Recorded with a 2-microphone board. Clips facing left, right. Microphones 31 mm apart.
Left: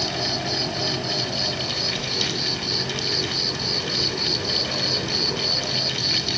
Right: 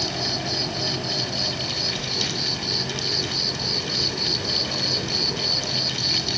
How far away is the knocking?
I don't hear knocking.